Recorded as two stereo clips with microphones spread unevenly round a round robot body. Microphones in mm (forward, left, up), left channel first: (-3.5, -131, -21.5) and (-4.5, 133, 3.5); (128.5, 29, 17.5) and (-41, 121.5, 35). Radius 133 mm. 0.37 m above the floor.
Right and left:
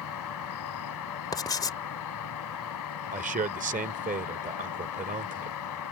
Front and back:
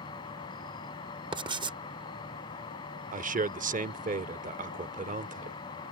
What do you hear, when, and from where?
0.0 s an insect: 100° right
1.3 s writing: 150° right
3.1 s a man speaking: 140° left